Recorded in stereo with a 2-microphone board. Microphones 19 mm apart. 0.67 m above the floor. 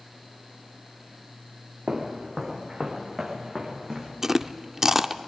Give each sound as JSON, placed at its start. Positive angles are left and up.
{"t": 1.9, "sound": "footsteps", "side_deg": -15, "distance_m": 2.5}
{"t": 4.2, "sound": "chewing", "side_deg": -25, "distance_m": 0.5}